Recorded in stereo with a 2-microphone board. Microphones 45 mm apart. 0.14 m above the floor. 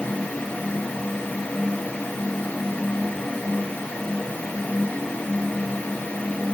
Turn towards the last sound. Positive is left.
No sound to turn to.